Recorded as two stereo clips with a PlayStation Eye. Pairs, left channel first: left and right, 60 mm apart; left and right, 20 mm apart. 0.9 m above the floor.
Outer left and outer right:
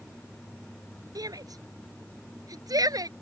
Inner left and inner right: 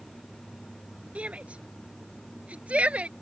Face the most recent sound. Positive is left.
turn(degrees=-85)